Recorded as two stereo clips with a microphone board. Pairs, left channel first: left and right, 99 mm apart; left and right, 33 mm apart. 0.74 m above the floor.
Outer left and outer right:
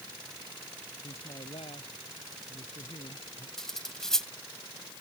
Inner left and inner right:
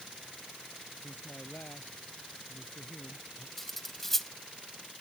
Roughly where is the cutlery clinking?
Centre.